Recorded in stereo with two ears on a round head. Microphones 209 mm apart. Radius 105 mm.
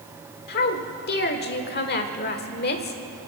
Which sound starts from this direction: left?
A woman speaking, at 0.5 s.